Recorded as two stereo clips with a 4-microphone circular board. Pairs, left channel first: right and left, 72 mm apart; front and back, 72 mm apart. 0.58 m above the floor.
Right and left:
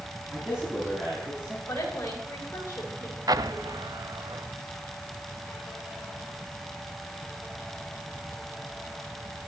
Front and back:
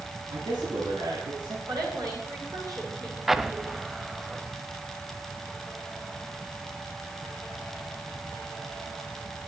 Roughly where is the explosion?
Left.